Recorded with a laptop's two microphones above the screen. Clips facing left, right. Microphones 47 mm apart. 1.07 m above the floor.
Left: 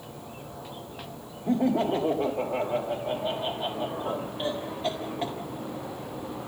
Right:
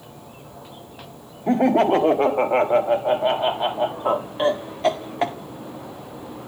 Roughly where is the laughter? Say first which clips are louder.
Right 7 dB; right.